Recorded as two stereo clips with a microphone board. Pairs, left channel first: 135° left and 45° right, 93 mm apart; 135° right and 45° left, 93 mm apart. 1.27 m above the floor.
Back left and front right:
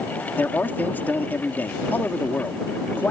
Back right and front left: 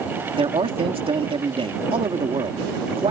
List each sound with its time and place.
0.4 s a man speaking: 65° left